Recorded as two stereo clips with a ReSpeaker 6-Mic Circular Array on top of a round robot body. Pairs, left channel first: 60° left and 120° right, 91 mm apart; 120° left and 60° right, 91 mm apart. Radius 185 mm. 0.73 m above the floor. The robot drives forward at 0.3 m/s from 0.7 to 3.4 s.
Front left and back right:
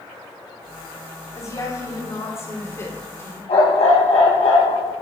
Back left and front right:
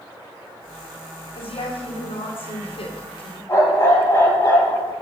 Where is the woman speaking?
115° left, 3 m; by 3.4 s 125° left, 3 m.